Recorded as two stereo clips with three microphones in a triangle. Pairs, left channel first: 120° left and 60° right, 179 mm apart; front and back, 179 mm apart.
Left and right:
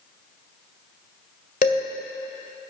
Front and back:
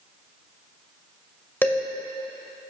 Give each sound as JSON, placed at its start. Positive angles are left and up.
{"t": 1.6, "sound": "dishes clattering", "azimuth_deg": 80, "distance_m": 2.0}